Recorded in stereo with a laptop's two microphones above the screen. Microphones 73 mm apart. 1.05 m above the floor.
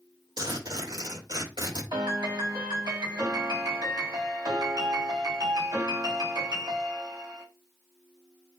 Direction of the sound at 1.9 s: 80° right.